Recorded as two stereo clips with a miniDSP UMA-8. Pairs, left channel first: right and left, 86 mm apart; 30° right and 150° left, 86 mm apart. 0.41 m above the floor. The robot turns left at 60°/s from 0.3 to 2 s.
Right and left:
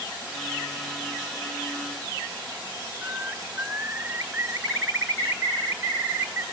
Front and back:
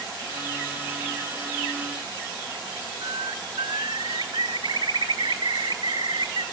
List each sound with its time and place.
3.0 s a bird: 160° left, 2.5 m